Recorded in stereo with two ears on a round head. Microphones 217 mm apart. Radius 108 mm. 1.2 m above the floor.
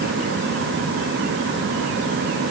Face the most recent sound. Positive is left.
No sound to turn to.